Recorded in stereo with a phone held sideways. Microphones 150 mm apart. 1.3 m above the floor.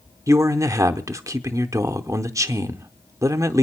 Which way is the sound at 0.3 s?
20° right (ahead or behind).